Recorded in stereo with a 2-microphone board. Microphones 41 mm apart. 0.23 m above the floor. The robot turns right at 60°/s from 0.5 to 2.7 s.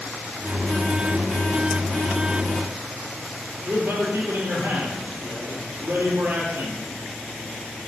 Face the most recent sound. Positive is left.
turn(degrees=-55)  # may be behind; listen again after turning